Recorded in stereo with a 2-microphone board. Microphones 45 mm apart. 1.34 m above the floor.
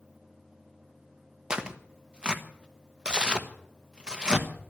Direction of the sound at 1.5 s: 20° right (ahead or behind).